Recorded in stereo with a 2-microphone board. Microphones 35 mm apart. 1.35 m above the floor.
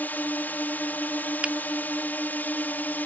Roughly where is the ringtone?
I don't hear a ringtone.